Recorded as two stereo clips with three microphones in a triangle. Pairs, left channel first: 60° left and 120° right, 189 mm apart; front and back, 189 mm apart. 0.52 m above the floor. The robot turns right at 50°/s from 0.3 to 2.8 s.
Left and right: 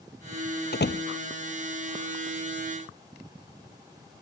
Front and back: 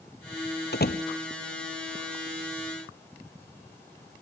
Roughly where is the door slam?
Ahead left.